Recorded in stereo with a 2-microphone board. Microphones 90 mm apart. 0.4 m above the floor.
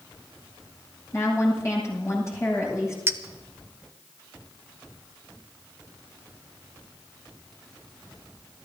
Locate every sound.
1.1 s a woman speaking: 30° left (ahead or behind), 7.5 m
3.1 s a clink: 30° right (ahead or behind), 1.0 m